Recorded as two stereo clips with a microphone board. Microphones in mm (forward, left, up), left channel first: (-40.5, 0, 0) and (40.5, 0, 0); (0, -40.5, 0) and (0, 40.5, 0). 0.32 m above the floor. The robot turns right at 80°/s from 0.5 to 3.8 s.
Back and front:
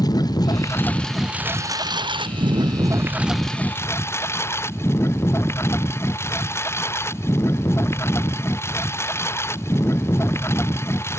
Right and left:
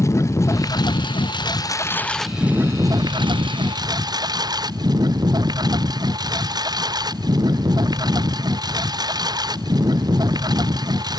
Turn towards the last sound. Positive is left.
turn(degrees=120)